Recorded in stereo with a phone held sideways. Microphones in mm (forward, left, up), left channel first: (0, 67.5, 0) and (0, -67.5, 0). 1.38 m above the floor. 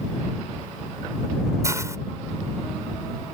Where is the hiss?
20° right (ahead or behind).